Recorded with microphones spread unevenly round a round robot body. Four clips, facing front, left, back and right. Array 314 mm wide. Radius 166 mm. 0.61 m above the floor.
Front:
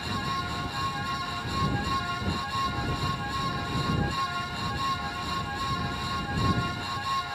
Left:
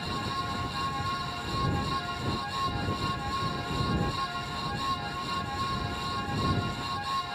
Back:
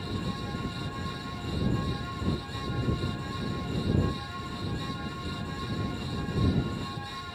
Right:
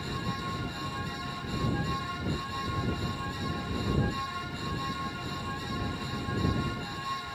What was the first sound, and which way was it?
Only background noise.